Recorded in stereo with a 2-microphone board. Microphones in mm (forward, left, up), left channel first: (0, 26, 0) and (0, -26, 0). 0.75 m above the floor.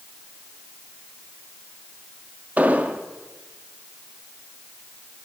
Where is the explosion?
30° right (ahead or behind), 1.3 m.